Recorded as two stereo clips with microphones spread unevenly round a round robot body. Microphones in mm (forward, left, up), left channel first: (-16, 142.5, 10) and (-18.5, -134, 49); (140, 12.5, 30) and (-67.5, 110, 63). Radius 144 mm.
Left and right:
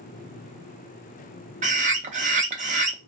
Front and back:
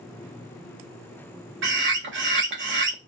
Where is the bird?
155° right, 0.7 m.